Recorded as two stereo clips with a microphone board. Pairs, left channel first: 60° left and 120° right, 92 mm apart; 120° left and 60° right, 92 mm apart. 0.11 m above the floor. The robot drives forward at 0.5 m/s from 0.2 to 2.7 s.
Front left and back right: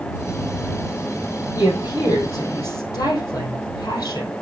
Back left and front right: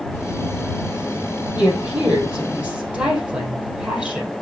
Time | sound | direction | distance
1.6 | a woman speaking | 15° left | 4 m